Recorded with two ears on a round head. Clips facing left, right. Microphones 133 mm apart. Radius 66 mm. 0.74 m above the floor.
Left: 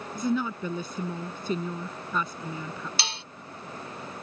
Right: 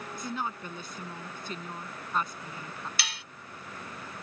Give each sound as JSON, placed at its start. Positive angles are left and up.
{"t": 0.1, "sound": "a woman speaking", "side_deg": 80}
{"t": 3.0, "sound": "dishes clattering", "side_deg": 25}